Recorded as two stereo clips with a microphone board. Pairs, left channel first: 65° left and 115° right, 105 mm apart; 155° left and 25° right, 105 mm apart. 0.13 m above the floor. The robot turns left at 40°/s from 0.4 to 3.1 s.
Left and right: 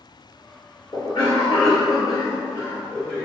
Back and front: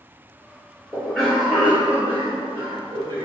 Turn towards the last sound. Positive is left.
turn(degrees=-5)